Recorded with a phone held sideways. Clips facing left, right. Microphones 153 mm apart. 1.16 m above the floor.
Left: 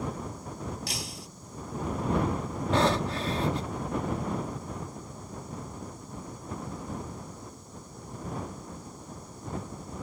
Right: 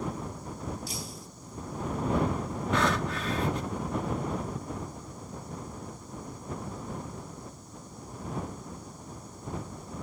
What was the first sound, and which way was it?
Breaking glass, 75° left (ahead or behind).